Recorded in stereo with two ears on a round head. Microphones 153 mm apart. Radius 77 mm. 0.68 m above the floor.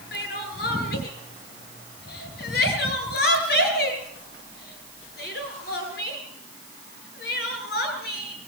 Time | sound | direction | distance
0.1 | crying | 60° left (ahead or behind) | 5 m